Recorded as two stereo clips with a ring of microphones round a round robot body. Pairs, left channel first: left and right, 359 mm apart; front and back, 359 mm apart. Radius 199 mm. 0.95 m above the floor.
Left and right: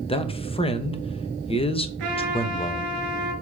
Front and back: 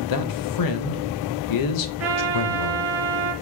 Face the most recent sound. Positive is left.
turn(degrees=-125)